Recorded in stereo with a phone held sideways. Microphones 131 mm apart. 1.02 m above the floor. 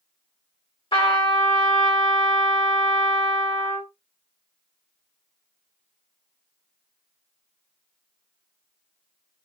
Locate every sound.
0.9 s a trumpet: 40° left (ahead or behind), 1.6 m